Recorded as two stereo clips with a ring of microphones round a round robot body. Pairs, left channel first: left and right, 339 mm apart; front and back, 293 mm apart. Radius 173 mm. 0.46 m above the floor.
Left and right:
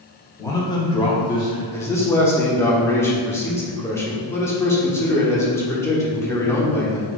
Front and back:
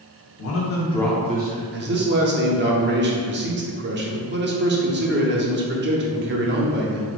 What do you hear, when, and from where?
0.4 s a man speaking: 10° left, 1.3 m; by 1.6 s 165° left, 1.1 m
1.7 s a man speaking: 170° left, 0.9 m